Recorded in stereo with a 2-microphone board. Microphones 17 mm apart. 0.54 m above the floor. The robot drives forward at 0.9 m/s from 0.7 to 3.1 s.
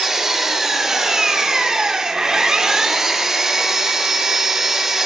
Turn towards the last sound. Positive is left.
turn(degrees=-35)  # may be behind; listen again after turning